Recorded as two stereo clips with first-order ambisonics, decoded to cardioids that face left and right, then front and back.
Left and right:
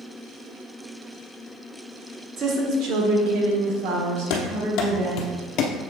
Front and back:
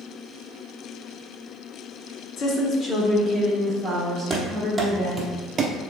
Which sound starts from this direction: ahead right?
A woman speaking, at 2.4 s.